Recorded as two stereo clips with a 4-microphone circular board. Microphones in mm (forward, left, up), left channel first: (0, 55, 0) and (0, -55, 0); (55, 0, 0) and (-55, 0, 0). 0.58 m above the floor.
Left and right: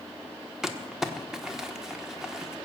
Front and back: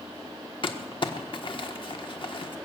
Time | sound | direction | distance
0.6 | crumpling | 5° right | 1.2 m